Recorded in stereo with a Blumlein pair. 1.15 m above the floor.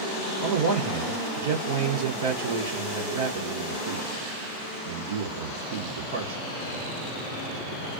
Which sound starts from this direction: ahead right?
A man speaking, at 0.4 s.